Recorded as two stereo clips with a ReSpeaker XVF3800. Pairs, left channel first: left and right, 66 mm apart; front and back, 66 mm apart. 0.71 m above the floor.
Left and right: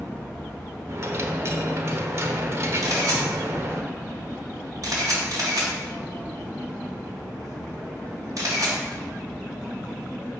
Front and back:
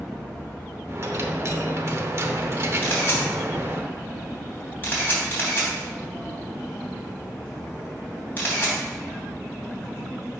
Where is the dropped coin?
135° right, 0.7 m.